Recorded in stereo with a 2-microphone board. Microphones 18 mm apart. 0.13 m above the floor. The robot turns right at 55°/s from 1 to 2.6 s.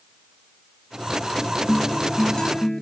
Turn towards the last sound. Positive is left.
turn(degrees=130)